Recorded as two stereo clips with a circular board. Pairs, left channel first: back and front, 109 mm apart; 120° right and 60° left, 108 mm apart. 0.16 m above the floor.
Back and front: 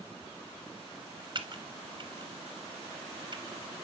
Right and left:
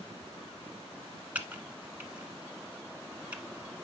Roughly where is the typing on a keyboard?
Ahead.